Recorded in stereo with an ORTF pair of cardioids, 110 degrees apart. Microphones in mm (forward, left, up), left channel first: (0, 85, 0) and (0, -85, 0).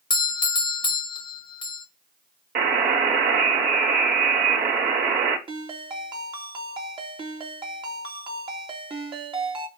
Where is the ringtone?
30° right, 2.5 m.